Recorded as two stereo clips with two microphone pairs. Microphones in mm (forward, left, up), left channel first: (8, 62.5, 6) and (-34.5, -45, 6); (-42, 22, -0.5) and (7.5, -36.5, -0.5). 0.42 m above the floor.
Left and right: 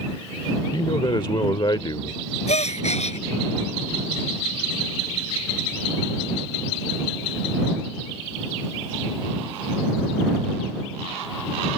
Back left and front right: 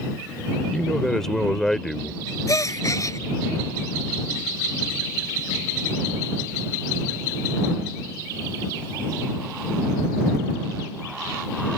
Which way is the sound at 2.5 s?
85° left.